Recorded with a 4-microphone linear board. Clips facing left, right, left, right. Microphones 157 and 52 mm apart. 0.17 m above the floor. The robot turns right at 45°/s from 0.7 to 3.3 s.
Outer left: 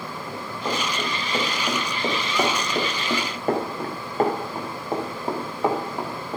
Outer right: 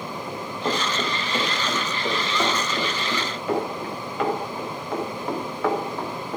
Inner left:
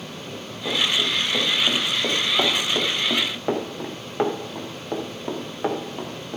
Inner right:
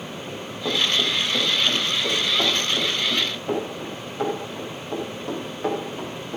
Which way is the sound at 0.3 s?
20° right (ahead or behind).